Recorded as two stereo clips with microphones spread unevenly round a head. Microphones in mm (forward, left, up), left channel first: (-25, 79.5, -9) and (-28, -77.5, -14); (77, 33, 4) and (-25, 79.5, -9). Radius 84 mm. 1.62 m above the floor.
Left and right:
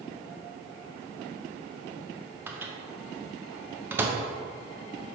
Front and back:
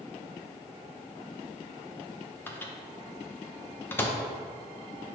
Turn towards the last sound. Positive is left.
turn(degrees=-30)